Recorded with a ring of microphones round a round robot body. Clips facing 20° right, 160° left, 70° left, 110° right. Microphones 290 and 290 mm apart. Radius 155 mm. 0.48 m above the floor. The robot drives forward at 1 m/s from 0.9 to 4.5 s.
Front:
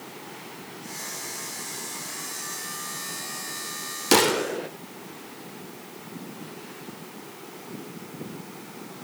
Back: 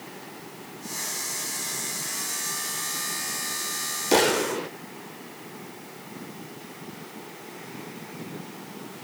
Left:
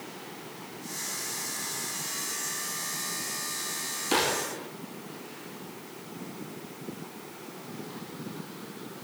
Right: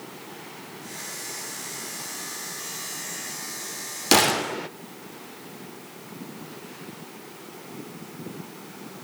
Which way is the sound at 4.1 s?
90° right.